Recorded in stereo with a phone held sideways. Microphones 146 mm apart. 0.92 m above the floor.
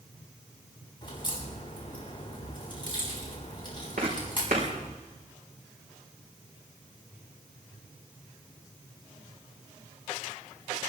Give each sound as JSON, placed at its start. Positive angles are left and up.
{"t": 1.0, "sound": "a crack", "side_deg": 35, "distance_m": 7.5}
{"t": 4.0, "sound": "footsteps", "side_deg": -75, "distance_m": 4.5}